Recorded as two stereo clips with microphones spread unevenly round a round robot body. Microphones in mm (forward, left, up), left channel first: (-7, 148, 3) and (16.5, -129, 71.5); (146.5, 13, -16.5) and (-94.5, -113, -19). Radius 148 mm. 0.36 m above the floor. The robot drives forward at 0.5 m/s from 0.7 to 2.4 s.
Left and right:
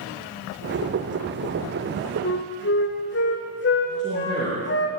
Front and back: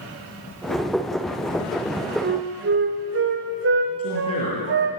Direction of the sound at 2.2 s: 150° left.